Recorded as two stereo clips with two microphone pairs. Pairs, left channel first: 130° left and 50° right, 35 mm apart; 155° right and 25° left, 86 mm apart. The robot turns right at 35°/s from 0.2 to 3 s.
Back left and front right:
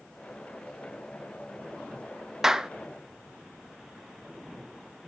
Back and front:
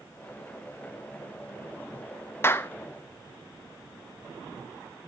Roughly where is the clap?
Behind right.